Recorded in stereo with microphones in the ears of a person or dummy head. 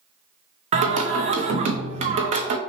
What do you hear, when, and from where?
0.7 s singing: 40° right (ahead or behind), 0.5 m